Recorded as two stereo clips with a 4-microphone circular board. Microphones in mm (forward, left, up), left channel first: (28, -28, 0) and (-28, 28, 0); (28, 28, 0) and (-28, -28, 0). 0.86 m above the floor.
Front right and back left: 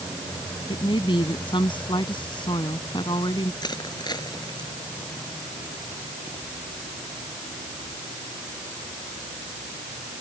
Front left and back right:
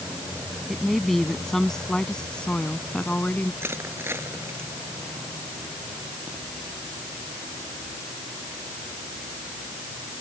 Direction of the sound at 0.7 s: 45° right.